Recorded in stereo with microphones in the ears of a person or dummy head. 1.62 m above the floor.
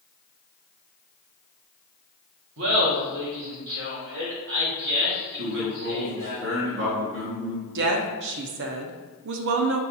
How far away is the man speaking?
About 0.9 m.